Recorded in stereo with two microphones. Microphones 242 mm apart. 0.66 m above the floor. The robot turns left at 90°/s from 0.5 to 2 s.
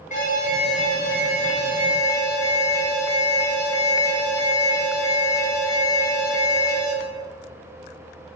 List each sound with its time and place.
0.1 s an alarm: 150° left, 1.7 m; by 7.0 s 15° left, 1.7 m